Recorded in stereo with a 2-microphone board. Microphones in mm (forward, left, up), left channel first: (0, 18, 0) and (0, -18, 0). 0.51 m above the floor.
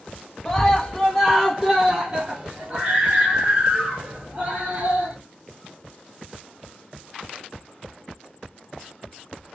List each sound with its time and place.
0.5 s a scream: 5° left (ahead or behind), 1.8 m; by 5.2 s 50° right (ahead or behind), 3 m